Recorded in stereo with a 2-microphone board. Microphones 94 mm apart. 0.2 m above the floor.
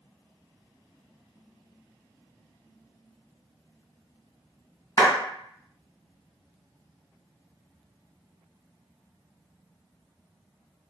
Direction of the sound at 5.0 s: 35° left (ahead or behind).